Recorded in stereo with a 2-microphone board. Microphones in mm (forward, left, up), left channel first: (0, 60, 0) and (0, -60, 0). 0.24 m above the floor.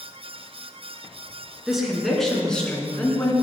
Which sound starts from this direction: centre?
A woman speaking, at 1.7 s.